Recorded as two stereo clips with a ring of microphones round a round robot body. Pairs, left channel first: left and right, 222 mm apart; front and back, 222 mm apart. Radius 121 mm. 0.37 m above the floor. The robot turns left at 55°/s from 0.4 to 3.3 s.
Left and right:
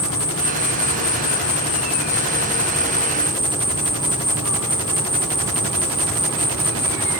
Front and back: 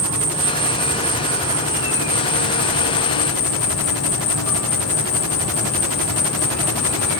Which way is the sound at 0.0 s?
140° left.